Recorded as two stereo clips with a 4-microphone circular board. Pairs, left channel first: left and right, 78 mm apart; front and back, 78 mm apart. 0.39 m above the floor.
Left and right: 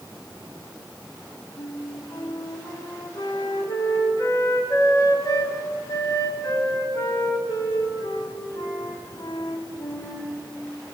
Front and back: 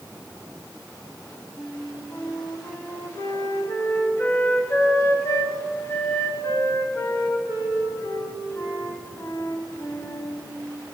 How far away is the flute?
About 1.7 m.